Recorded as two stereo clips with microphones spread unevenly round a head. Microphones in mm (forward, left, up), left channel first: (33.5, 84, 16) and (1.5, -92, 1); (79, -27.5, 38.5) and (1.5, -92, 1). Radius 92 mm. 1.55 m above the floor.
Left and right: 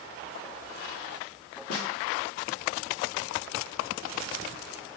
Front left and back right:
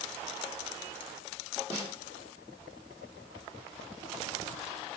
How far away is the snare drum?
About 0.8 m.